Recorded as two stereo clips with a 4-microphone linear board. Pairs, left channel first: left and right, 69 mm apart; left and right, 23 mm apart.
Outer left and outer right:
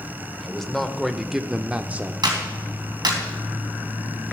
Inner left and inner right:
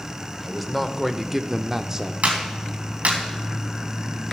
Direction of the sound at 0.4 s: 5° left (ahead or behind).